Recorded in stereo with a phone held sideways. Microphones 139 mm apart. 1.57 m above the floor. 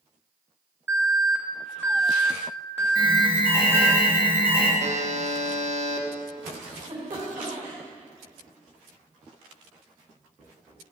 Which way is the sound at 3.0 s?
75° right (ahead or behind).